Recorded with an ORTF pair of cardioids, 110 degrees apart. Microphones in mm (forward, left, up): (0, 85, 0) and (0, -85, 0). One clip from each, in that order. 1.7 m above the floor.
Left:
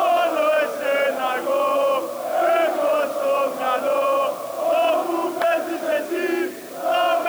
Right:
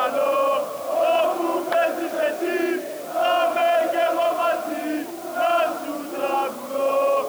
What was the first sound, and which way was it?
Only background noise.